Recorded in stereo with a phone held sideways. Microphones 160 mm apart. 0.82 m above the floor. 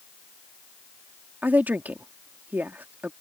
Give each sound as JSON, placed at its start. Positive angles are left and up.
{"t": 1.4, "sound": "a woman speaking", "side_deg": -10}